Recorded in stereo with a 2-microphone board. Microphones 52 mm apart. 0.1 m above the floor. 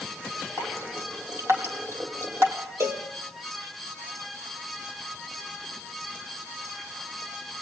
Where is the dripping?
60° right (ahead or behind), 3.5 m.